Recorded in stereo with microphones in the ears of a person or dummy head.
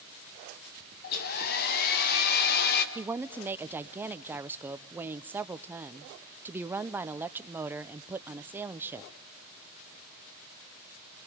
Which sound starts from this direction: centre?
A woman speaking, at 3.0 s.